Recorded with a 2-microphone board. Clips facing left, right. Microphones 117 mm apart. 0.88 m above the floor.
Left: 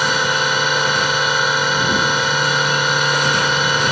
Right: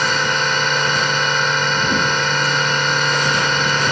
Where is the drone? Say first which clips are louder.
Left 1 dB; 5° left (ahead or behind).